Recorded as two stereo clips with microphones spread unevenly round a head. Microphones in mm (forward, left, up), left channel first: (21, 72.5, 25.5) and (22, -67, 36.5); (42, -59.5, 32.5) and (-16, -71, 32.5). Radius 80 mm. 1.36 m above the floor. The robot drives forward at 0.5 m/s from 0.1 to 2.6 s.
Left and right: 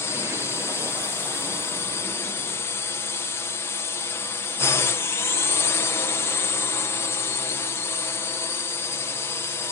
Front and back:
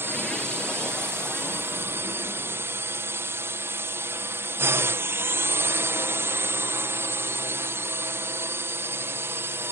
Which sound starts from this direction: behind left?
A drone, at 0.0 s.